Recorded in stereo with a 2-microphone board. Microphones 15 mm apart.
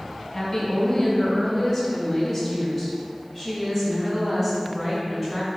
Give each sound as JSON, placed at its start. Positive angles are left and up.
{"t": 0.3, "sound": "a woman speaking", "side_deg": 30, "distance_m": 2.5}